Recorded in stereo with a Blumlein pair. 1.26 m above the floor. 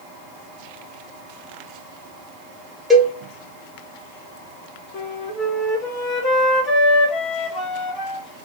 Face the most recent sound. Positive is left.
turn(degrees=35)